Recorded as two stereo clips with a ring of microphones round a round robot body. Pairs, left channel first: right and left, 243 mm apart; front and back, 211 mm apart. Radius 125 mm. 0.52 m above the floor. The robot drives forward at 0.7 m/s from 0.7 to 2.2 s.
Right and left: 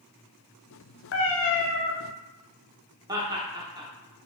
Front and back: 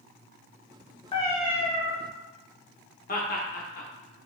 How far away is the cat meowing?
About 0.6 m.